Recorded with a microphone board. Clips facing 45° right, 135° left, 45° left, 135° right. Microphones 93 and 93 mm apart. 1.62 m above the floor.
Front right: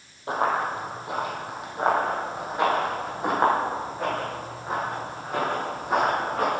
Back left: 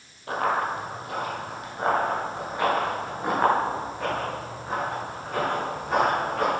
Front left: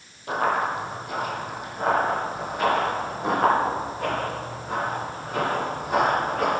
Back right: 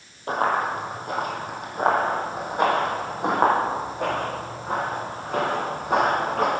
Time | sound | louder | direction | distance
0.3 | running footsteps | front right 1 dB, back right 1 dB | 100° right | 2.5 m